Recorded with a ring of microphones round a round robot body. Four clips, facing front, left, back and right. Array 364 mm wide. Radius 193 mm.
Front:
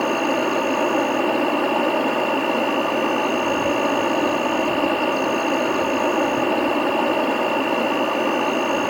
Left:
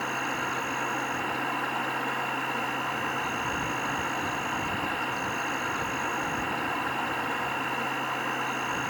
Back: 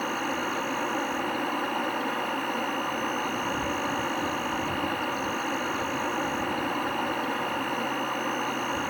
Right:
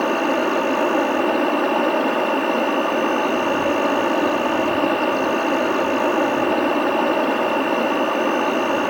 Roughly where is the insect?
Ahead right.